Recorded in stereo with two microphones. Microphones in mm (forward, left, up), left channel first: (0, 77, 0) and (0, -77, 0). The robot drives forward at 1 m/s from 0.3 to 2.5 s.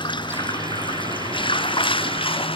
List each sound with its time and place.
0.0 s running water: 30° left (ahead or behind); by 2.6 s 35° left (ahead or behind)